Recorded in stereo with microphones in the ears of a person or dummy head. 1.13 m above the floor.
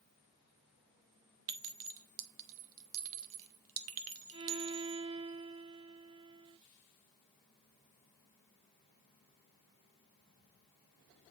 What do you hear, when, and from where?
1.5 s a clink: 65° right (ahead or behind), 0.9 m
4.3 s a violin: 30° right (ahead or behind), 1.1 m